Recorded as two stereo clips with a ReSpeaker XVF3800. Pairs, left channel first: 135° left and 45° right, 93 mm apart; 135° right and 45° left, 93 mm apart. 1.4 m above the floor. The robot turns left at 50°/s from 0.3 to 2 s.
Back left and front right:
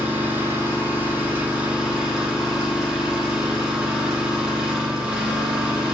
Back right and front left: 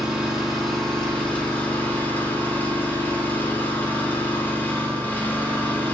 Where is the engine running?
30° right, 0.8 m; by 5.9 s 115° right, 0.8 m.